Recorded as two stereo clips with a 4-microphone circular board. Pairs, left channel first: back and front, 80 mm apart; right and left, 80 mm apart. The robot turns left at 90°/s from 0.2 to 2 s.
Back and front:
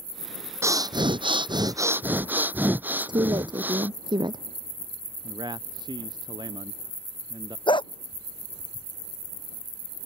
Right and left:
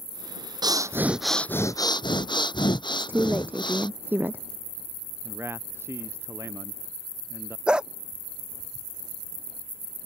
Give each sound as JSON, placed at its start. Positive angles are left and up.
{"t": 0.6, "sound": "breathing", "azimuth_deg": 60}
{"t": 2.9, "sound": "a woman speaking", "azimuth_deg": 25}
{"t": 5.2, "sound": "a man speaking", "azimuth_deg": 30}
{"t": 7.7, "sound": "a dog barking", "azimuth_deg": 170}